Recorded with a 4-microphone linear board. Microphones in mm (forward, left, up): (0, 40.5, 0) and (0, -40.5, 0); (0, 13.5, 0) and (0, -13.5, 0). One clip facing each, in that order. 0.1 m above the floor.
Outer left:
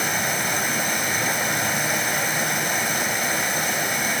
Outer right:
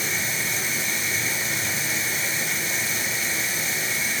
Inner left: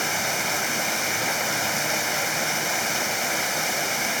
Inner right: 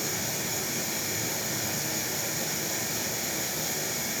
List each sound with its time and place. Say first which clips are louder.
0.0 s running water: outer left 5 dB, inner left 7 dB; 65° left (ahead or behind), 2 m